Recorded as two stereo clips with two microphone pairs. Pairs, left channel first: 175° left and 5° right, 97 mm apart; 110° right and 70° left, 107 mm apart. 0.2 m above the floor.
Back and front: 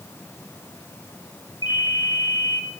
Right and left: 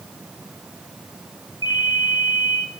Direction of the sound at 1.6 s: 150° right.